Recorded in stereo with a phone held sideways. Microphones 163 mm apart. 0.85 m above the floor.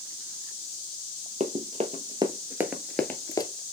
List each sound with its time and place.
1.4 s running footsteps: 50° right (ahead or behind), 1.2 m; by 3.5 s 30° left (ahead or behind), 0.9 m